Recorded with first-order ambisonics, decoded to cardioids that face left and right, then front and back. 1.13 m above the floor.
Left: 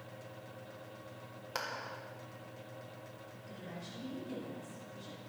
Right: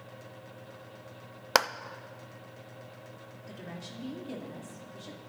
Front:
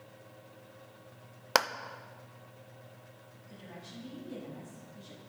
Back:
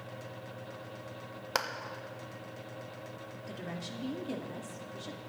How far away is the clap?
About 0.6 m.